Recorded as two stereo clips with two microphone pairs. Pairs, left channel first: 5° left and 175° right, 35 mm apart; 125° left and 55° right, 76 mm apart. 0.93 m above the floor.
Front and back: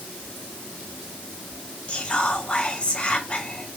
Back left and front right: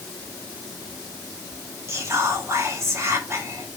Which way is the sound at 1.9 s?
40° right.